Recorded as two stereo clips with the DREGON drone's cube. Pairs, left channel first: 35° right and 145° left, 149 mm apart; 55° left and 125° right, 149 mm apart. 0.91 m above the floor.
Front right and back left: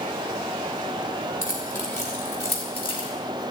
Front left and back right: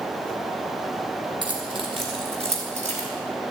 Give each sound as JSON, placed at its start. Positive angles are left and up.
{"t": 1.4, "sound": "keys jangling", "azimuth_deg": -65, "distance_m": 4.5}